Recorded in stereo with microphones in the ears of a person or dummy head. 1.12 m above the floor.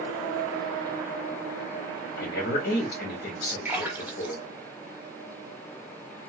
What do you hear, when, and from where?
2.2 s a woman speaking: 45° left (ahead or behind), 1.2 m
3.6 s a splash: 15° right (ahead or behind), 1.3 m